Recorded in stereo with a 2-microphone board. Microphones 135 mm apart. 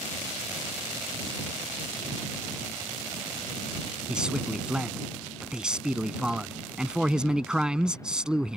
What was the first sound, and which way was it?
A man speaking, 5° right (ahead or behind).